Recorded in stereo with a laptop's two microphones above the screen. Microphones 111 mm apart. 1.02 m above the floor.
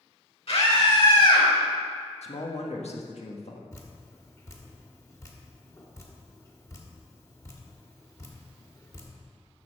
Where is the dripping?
30° left (ahead or behind), 1.9 m.